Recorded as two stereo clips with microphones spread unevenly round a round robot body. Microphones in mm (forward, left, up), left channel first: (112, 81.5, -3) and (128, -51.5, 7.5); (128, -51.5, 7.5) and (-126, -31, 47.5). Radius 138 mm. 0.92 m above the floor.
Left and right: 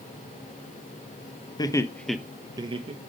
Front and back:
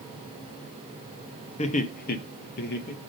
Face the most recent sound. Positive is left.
turn(degrees=-45)